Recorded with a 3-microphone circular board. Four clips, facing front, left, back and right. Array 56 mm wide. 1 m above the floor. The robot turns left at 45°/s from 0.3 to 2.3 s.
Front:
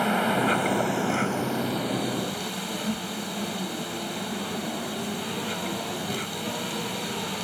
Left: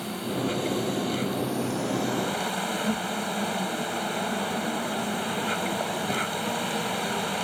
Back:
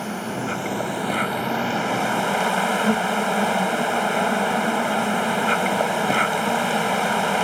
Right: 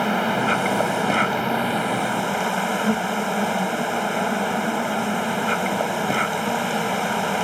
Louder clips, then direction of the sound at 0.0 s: Right 9 dB, front 4 dB; 65° right.